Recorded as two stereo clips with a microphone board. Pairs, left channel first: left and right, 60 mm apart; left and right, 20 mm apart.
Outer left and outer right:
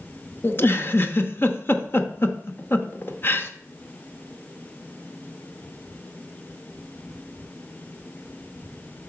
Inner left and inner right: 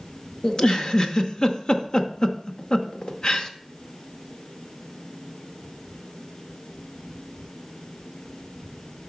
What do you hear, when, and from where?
0.4 s a giggle: 40° left (ahead or behind), 0.6 m